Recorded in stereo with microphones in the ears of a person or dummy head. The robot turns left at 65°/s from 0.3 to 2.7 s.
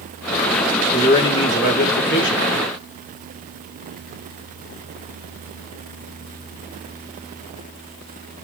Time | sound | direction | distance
0.9 | a man speaking | 175° left | 0.8 m